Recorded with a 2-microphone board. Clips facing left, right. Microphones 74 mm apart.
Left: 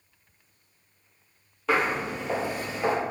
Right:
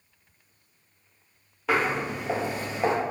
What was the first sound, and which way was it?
Footsteps, centre (ahead or behind).